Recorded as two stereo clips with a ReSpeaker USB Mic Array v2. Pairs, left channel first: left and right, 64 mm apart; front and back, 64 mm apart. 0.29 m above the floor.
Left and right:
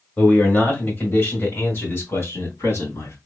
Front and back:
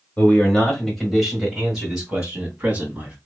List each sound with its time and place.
0.2 s a man speaking: 50° left, 1.4 m; by 3.1 s 115° left, 2.5 m